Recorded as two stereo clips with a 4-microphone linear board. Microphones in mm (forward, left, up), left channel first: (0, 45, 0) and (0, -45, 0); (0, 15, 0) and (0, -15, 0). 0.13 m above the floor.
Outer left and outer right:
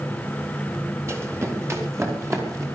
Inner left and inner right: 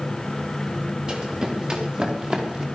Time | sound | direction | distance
1.1 | running footsteps | 30° right (ahead or behind) | 3.5 m